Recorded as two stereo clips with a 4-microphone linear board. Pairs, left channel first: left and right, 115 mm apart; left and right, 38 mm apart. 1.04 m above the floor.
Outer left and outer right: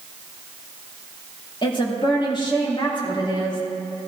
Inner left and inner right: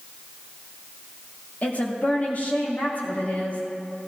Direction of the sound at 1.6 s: 45° left (ahead or behind).